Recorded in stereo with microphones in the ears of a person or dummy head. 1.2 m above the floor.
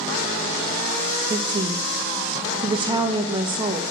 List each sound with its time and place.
1.3 s a woman speaking: 20° right (ahead or behind), 1.2 m